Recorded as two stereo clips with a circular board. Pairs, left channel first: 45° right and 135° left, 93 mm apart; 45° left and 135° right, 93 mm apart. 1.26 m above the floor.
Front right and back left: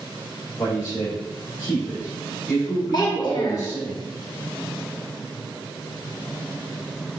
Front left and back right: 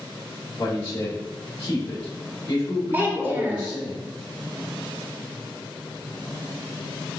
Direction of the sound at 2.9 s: 70° right.